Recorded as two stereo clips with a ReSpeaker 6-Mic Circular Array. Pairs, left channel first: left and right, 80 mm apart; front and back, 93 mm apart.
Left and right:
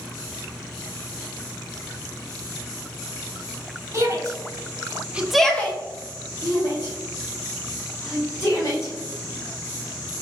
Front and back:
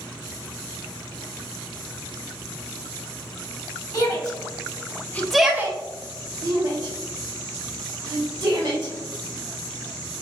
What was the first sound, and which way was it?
A shout, 40° right.